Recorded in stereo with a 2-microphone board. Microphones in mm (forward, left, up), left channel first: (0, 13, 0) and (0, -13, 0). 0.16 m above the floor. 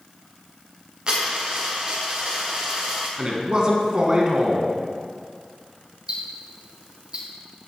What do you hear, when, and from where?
1.1 s a dropped coin: 35° right (ahead or behind), 3 m
3.2 s a man speaking: 35° right (ahead or behind), 1.7 m
6.1 s ticking: 40° right (ahead or behind), 3.5 m